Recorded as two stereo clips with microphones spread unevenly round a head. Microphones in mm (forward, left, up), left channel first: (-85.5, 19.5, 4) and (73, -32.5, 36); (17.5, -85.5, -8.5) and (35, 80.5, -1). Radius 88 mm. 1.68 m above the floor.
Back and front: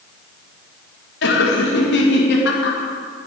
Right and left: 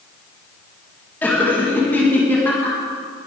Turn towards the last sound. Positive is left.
turn(degrees=-175)